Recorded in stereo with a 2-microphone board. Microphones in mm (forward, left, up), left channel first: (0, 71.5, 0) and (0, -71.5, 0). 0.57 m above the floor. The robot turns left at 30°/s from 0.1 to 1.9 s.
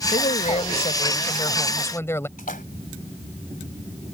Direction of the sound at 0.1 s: 70° left.